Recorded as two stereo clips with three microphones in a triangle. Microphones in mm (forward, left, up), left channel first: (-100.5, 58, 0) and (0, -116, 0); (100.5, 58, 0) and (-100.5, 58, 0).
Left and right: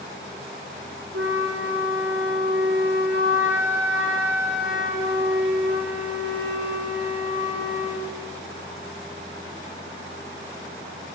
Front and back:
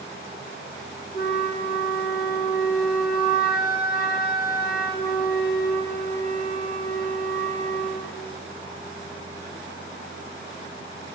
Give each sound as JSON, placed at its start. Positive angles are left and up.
{"t": 1.1, "sound": "a flute", "azimuth_deg": -40, "distance_m": 2.5}